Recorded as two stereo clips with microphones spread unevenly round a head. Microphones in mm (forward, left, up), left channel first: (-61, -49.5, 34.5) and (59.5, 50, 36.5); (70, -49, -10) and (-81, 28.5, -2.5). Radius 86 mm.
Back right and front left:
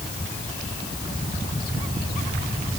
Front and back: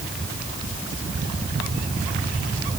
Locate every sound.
Only background noise.